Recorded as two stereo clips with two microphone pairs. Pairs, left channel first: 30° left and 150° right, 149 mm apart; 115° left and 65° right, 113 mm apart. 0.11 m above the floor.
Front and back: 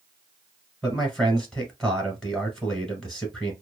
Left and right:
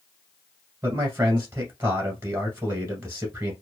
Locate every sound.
0.8 s a man speaking: 55° right, 1.4 m